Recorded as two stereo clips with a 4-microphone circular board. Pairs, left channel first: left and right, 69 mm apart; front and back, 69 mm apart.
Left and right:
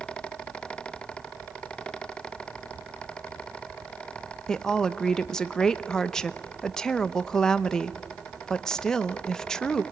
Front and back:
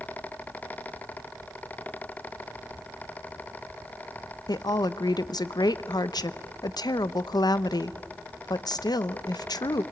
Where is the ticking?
No ticking in this recording.